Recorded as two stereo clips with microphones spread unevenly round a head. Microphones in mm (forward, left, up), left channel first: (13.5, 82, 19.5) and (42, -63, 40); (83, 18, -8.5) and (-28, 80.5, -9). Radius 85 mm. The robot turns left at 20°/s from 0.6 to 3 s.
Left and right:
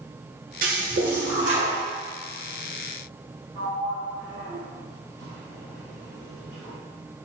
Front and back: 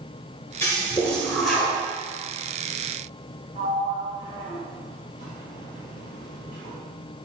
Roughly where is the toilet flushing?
Right.